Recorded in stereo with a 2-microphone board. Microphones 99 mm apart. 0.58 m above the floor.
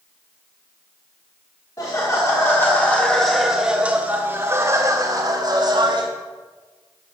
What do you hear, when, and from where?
1.8 s laughter: 40° left (ahead or behind), 1.8 m; by 6.1 s 50° right (ahead or behind), 2.5 m